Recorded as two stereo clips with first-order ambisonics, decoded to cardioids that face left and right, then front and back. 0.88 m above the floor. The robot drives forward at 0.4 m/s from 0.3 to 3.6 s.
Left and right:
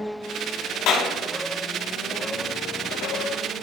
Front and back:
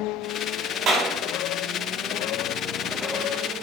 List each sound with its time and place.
0.9 s a clap: 125° left, 2.5 m; by 1.1 s 130° left, 2.5 m